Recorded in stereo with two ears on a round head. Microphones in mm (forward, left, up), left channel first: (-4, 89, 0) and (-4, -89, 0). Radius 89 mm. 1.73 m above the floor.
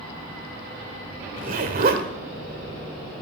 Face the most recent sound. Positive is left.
turn(degrees=-45)  # may be behind; listen again after turning